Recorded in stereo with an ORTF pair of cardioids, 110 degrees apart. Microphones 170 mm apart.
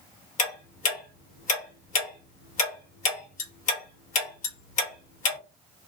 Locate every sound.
0.4 s ticking: 45° left, 1.3 m